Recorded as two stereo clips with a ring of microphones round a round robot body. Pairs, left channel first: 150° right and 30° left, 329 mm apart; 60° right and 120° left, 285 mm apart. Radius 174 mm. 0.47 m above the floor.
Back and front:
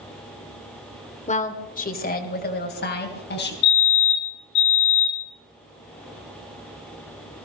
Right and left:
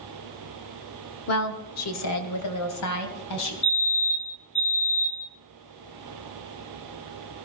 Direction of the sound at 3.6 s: 125° right.